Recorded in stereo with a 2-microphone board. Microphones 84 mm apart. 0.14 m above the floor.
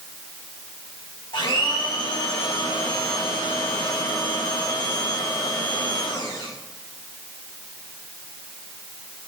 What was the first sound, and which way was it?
A blender, 65° left (ahead or behind).